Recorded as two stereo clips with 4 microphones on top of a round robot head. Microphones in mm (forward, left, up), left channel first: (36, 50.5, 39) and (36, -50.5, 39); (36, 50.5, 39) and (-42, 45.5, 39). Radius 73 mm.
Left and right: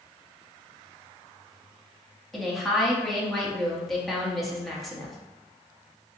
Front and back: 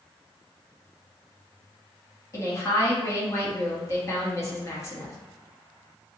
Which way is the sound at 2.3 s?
Straight ahead.